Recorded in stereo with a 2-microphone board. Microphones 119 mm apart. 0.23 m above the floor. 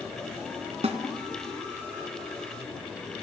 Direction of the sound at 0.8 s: 60° right (ahead or behind).